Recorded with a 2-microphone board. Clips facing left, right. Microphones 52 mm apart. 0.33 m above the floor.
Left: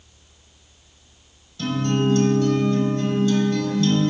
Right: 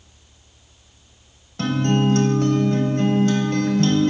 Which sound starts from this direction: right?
A guitar, at 1.6 s.